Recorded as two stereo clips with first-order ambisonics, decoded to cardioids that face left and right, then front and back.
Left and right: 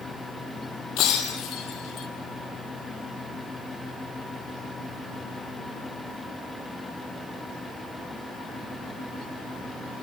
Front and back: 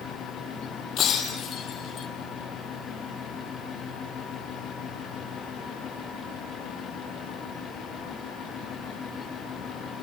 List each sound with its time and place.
1.0 s breaking glass: 55° left, 2.5 m